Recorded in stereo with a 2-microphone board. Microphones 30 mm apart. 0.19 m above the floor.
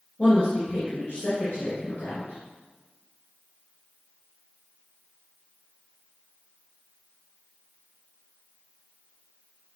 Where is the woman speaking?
35° left (ahead or behind), 2.5 m.